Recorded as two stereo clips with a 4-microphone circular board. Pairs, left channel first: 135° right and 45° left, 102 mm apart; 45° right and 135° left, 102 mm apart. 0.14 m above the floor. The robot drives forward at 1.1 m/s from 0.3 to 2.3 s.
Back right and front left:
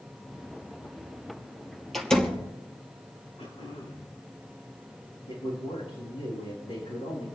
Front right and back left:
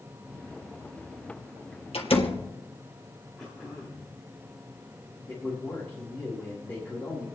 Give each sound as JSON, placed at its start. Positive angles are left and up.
{"t": 1.9, "sound": "a door slam", "azimuth_deg": -50, "distance_m": 2.5}
{"t": 3.4, "sound": "throat clearing", "azimuth_deg": -130, "distance_m": 9.5}
{"t": 5.3, "sound": "a man speaking", "azimuth_deg": -120, "distance_m": 8.5}